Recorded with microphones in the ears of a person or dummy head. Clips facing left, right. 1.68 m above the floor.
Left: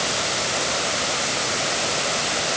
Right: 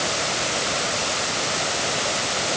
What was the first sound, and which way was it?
Only background noise.